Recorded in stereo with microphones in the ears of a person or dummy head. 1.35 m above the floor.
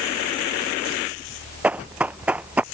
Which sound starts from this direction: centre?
Running footsteps, at 1.6 s.